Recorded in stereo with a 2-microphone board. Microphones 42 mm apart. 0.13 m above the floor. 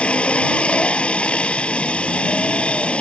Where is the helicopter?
25° left (ahead or behind).